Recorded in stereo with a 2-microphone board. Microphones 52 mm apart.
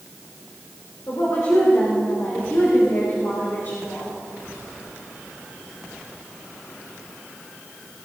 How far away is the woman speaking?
About 4 m.